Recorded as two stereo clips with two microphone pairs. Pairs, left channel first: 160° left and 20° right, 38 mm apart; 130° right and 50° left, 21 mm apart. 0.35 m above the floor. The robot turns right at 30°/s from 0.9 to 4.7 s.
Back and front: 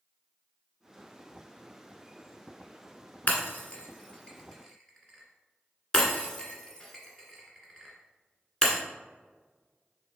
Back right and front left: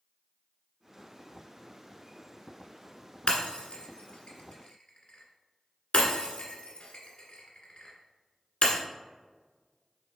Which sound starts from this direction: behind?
Breaking glass, at 3.3 s.